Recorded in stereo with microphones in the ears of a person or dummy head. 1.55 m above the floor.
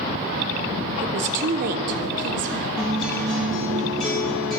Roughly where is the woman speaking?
Right.